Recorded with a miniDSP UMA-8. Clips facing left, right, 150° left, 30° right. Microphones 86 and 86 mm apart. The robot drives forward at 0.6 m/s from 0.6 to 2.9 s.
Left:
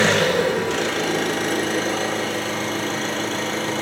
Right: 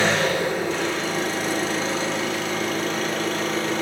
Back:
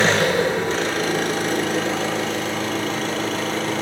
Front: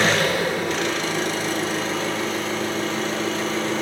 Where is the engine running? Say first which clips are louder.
Left 3 dB, back 2 dB; 90° left, 0.9 m; by 3.8 s 145° left, 1.6 m.